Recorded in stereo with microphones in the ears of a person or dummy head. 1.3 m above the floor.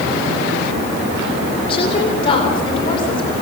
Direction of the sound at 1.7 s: 35° left (ahead or behind).